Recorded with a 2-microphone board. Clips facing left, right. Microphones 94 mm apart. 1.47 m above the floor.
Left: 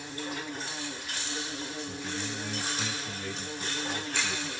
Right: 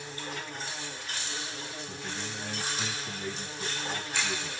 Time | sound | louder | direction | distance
0.0 | an insect | left 2 dB | 10° left (ahead or behind) | 2.5 m
1.9 | a man speaking | left 3 dB | 15° right (ahead or behind) | 3.5 m